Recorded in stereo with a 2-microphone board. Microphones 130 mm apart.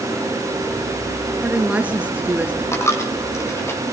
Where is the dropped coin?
20° left (ahead or behind), 3 m.